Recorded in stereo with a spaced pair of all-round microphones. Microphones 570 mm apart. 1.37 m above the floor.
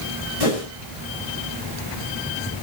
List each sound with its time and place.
0.4 s a whoosh: 70° left (ahead or behind), 7 m